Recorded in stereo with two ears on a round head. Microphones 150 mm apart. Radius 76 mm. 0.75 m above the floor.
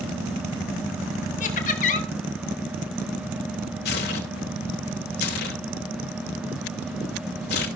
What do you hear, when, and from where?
1.4 s laughter: 45° left (ahead or behind), 1.7 m
3.9 s tearing paper: 65° left (ahead or behind), 2 m